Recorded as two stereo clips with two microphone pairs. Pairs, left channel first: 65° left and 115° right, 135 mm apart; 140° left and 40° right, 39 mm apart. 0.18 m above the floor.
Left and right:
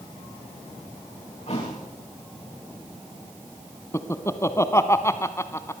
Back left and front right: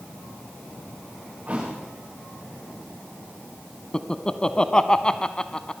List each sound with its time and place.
1.5 s a thud: 25° left, 9.5 m
3.9 s laughter: 105° left, 1.1 m